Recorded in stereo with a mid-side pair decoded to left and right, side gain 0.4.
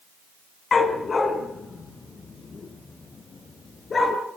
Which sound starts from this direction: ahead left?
A dog barking, at 0.7 s.